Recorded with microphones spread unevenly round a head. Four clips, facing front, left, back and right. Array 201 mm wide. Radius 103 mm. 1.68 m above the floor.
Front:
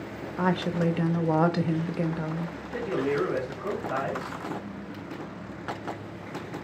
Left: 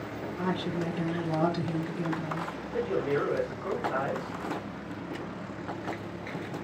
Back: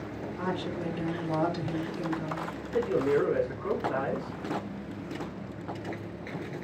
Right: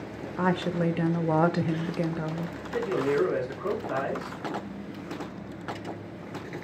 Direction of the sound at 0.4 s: 40° right.